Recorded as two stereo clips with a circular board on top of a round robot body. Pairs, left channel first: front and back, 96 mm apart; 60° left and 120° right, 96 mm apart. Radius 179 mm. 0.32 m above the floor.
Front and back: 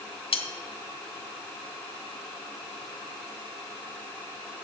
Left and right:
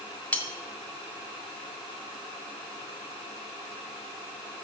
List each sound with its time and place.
0.3 s cutlery clinking: 15° right, 1.4 m